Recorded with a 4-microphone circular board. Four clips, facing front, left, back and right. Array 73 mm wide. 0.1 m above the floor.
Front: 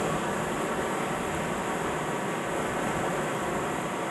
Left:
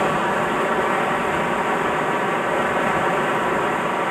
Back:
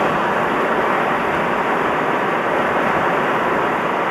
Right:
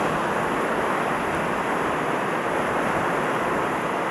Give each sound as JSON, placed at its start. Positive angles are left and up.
{"t": 0.0, "sound": "running water", "azimuth_deg": 175, "distance_m": 0.9}